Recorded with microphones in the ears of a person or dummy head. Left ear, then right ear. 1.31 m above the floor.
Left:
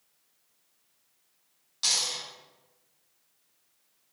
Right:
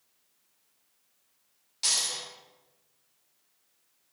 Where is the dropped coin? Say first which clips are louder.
Left 1 dB; 10° left (ahead or behind), 1.8 m.